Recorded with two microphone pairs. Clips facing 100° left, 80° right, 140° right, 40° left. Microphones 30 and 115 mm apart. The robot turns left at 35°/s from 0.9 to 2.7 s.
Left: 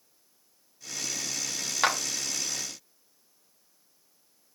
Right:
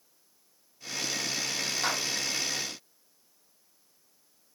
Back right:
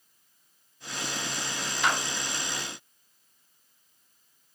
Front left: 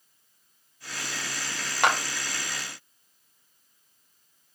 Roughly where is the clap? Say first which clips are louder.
Left 6 dB, front left 4 dB; ahead left.